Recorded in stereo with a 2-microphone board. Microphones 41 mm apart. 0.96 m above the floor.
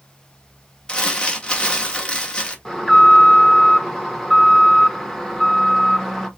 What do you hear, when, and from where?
0.9 s crumpling: 20° left (ahead or behind), 1.0 m
2.6 s an alarm: 10° left (ahead or behind), 1.0 m